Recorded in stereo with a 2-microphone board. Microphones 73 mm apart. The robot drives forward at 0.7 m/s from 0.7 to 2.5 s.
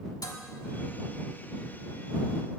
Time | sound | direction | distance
0.2 | dishes clattering | 60° left (ahead or behind) | 1.6 m